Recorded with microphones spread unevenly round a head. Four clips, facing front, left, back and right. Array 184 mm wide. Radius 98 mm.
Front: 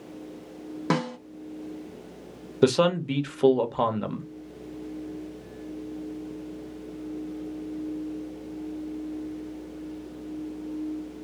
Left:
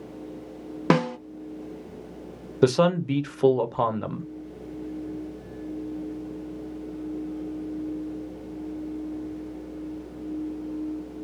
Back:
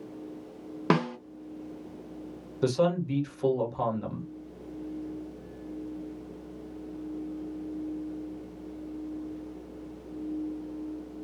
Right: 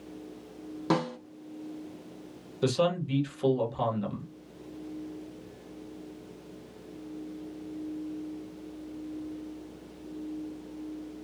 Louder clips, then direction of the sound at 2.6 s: Left 7 dB, front 5 dB; 45° left.